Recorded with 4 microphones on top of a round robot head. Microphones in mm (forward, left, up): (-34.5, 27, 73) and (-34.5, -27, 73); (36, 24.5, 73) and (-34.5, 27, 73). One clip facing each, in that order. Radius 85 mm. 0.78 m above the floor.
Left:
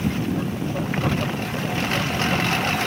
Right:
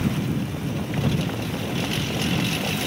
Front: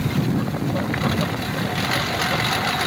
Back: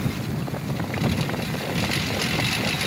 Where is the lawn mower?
35° left; by 2.9 s 40° left.